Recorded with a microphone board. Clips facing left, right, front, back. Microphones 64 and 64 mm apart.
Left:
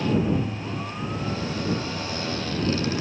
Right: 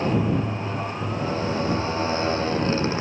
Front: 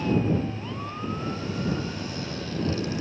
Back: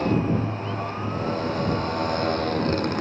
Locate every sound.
0.0 s a motorcycle: 145° right; by 3.0 s 150° right